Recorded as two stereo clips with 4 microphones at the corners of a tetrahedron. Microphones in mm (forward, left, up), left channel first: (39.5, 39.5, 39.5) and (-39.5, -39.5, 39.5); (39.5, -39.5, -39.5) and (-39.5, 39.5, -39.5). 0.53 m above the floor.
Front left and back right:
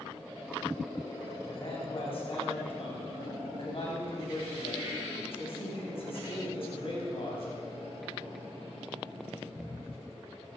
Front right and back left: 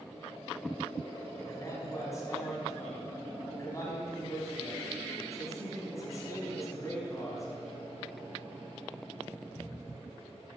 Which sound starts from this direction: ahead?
A man speaking, at 1.5 s.